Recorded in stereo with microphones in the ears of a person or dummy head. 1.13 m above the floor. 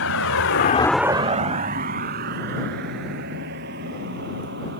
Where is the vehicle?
85° left; by 4.8 s 55° right (ahead or behind).